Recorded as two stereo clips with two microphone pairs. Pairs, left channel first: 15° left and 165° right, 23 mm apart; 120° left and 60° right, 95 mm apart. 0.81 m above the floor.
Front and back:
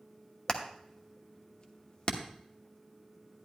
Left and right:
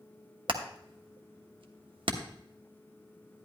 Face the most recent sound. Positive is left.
turn(degrees=-30)